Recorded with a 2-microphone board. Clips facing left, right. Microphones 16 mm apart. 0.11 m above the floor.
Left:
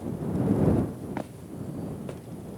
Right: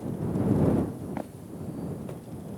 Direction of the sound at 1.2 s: 35° left (ahead or behind).